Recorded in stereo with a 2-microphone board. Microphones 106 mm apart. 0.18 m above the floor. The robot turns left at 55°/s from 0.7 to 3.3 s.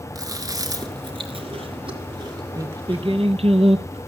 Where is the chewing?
35° right (ahead or behind), 3.5 m; by 3.0 s 10° right (ahead or behind), 3.5 m.